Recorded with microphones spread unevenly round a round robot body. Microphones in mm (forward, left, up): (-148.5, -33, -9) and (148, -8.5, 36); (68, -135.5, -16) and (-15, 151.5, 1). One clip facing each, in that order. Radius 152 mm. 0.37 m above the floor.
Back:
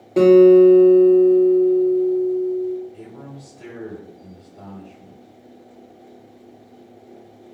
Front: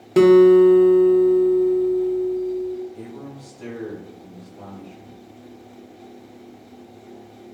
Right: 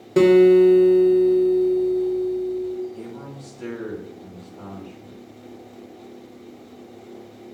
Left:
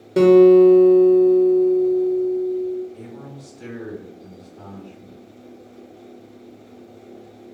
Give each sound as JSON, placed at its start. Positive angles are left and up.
{"t": 0.2, "sound": "a guitar", "azimuth_deg": 0, "distance_m": 0.6}
{"t": 2.9, "sound": "a man speaking", "azimuth_deg": 175, "distance_m": 1.8}